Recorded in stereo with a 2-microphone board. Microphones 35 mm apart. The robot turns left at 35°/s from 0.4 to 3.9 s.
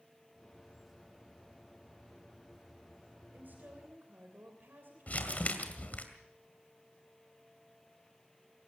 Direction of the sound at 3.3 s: 60° right (ahead or behind).